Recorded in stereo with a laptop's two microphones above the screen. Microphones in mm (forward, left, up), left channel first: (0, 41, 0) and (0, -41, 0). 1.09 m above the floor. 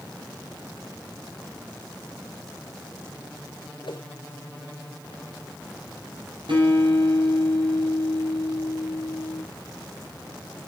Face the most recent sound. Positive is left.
turn(degrees=-85)